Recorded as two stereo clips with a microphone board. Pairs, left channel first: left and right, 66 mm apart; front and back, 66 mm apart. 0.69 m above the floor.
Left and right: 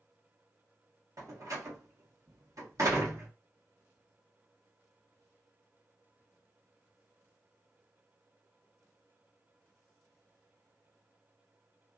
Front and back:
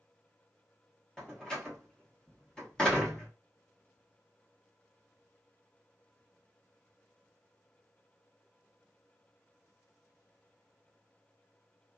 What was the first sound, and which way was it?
A door slam, 75° right.